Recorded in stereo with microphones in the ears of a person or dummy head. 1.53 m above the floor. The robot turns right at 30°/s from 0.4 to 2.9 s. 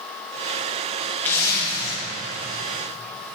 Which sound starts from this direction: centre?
A zipper, at 1.2 s.